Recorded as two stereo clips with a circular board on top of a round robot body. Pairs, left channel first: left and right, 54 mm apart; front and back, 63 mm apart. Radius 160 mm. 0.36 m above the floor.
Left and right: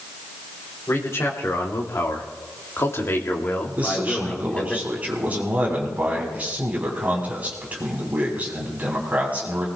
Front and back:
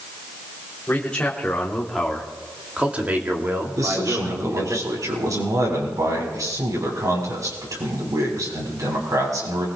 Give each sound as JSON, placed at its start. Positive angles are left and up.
{"t": 0.9, "sound": "a man speaking", "azimuth_deg": 65, "distance_m": 3.0}
{"t": 3.8, "sound": "a man speaking", "azimuth_deg": -155, "distance_m": 6.5}